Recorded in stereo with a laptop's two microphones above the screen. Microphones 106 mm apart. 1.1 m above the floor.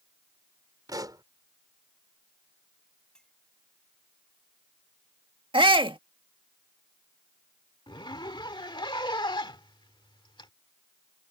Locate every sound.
0.9 s a pop: 35° right (ahead or behind)
3.1 s a clink: 5° left (ahead or behind)
5.5 s a shout: 55° right (ahead or behind)
7.9 s a zipper: 50° left (ahead or behind)